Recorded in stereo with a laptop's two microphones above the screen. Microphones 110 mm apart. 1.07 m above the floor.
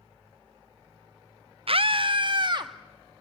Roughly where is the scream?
Right.